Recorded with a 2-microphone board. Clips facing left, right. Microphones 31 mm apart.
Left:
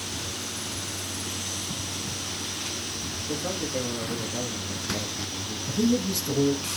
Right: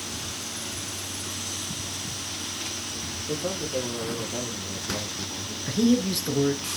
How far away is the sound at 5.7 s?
About 2.5 m.